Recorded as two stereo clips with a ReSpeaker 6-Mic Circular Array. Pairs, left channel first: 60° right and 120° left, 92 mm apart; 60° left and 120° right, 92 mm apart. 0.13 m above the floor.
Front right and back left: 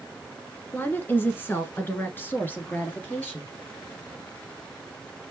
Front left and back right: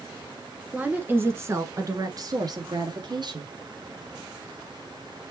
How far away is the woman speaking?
About 1.1 m.